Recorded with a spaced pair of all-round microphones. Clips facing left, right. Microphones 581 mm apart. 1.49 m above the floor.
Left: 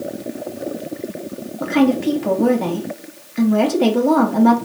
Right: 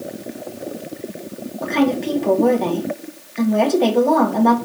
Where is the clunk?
No clunk in this recording.